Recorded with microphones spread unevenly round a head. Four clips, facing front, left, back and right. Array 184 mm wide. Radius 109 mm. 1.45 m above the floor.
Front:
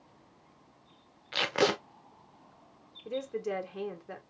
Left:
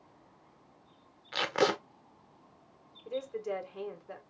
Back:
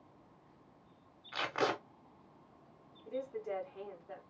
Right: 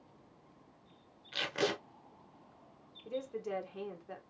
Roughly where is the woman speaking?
Ahead.